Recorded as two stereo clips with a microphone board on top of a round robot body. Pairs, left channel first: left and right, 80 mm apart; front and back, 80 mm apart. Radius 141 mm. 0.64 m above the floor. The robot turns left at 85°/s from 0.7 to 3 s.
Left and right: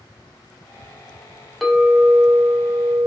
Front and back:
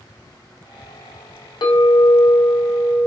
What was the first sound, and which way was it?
A clink, straight ahead.